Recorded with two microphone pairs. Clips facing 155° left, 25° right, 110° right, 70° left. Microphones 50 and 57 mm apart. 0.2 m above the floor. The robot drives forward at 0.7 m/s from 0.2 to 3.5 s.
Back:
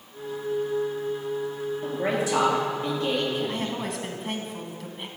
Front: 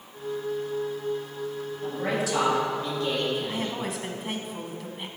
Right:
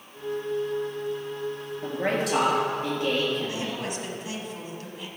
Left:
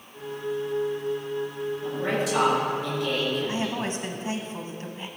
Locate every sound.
1.8 s a woman speaking: 140° right, 3 m; by 3.8 s 150° right, 4 m
3.5 s a woman speaking: 65° left, 1.1 m